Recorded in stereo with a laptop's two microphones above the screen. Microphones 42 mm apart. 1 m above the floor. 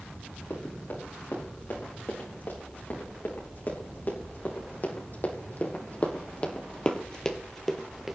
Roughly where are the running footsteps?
Left.